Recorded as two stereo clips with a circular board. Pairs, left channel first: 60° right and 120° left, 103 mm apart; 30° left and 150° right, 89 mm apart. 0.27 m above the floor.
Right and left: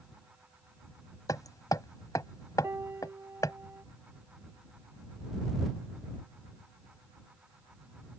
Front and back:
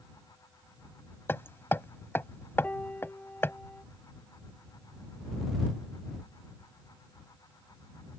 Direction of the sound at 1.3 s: 25° right.